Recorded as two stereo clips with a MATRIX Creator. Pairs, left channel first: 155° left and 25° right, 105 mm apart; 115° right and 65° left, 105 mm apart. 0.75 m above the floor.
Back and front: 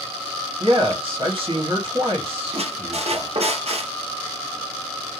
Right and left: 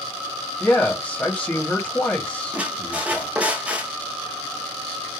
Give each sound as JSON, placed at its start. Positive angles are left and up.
{"t": 0.6, "sound": "a man speaking", "azimuth_deg": -35, "distance_m": 1.5}
{"t": 2.5, "sound": "a squeak", "azimuth_deg": -10, "distance_m": 0.7}